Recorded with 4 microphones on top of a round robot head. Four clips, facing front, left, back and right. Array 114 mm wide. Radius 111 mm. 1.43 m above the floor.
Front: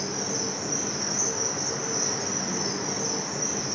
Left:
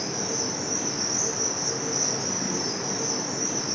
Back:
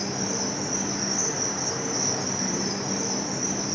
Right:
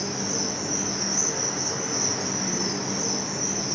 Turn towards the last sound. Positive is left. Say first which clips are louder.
# right 1 dB, back 2 dB
turn(degrees=160)